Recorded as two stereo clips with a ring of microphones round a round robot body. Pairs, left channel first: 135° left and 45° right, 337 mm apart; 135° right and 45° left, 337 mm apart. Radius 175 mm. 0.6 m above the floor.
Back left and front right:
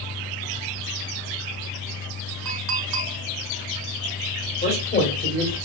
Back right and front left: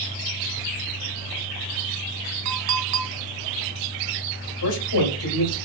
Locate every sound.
2.5 s a clink: 5° right, 1.7 m
4.6 s a man speaking: 165° right, 2 m